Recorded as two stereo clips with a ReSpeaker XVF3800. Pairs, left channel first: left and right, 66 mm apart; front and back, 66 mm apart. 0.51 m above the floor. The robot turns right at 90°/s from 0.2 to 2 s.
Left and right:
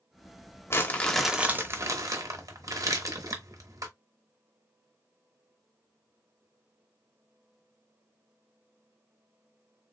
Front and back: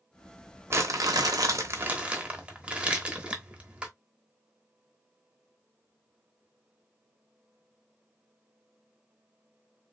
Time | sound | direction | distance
0.7 | crumpling | 135° left | 1.0 m